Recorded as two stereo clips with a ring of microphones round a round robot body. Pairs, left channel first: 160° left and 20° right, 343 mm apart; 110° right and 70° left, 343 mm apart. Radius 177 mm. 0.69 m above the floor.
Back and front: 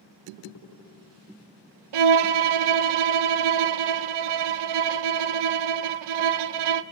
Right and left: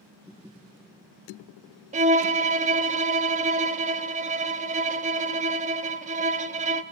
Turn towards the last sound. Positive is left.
turn(degrees=-5)